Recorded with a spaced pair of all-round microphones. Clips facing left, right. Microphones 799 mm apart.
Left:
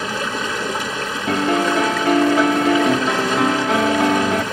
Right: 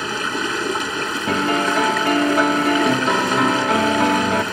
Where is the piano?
5° right (ahead or behind).